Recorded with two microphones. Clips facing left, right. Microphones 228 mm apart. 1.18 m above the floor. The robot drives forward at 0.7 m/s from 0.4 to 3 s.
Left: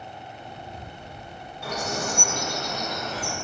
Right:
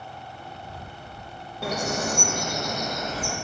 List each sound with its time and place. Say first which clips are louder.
1.6 s a bird: right 3 dB; 75° right (ahead or behind), 1.4 m; by 3.4 s 45° right (ahead or behind), 1.9 m